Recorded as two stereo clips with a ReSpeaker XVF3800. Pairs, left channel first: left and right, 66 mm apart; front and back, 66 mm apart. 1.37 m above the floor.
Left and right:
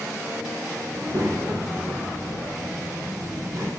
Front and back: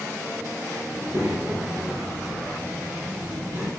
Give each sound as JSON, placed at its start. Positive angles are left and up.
{"t": 0.9, "sound": "a child speaking", "azimuth_deg": -130, "distance_m": 4.5}